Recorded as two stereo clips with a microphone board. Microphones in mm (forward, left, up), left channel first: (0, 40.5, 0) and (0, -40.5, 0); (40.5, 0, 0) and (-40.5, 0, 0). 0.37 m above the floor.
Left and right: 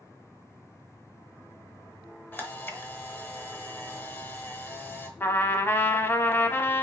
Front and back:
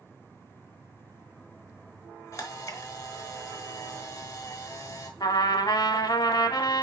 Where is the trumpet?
30° left, 0.6 m.